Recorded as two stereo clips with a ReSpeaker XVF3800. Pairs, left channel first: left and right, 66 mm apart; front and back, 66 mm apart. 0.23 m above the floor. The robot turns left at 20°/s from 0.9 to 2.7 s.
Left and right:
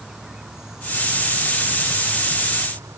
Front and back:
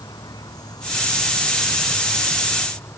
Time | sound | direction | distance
0.0 | an insect | 10° right | ?